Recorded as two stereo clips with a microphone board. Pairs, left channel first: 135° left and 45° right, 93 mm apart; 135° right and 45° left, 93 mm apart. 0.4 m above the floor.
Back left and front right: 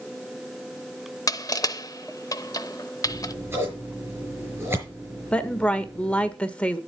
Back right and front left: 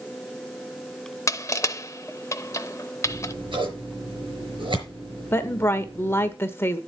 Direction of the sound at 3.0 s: 20° left.